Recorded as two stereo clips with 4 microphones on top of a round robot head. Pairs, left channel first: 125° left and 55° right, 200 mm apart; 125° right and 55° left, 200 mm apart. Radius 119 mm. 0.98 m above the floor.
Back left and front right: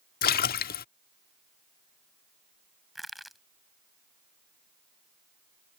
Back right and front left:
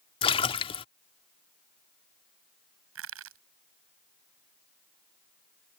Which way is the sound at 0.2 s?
170° left.